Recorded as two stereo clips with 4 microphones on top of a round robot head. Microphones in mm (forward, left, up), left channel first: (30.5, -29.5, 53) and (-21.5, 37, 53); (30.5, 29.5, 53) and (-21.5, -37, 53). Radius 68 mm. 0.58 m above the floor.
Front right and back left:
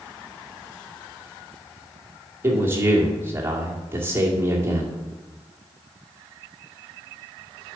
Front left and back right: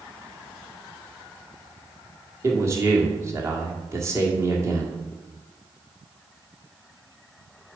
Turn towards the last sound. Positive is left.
turn(degrees=-175)